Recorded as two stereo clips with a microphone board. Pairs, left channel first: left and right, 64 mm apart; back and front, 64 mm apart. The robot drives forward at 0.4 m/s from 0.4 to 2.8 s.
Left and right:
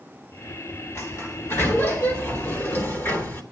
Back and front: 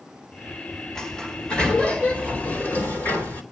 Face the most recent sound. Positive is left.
turn(degrees=130)